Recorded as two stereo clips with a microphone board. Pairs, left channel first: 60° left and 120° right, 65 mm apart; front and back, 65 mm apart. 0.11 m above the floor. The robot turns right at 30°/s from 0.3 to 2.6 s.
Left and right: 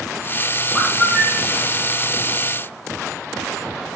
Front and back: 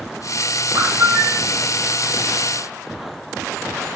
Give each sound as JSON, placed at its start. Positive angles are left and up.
{"t": 0.8, "sound": "a bird", "azimuth_deg": 145, "distance_m": 1.0}